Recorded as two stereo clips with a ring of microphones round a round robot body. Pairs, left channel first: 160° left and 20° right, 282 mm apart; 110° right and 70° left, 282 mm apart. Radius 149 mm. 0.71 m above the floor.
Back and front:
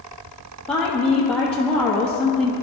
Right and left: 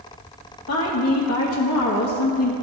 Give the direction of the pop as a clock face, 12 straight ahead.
No pop in this recording.